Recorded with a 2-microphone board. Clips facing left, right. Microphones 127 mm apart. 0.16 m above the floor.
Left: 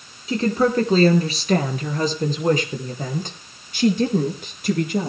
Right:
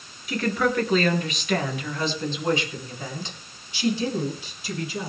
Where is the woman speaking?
25° left (ahead or behind), 3 m; by 5.1 s 60° left (ahead or behind), 4.5 m.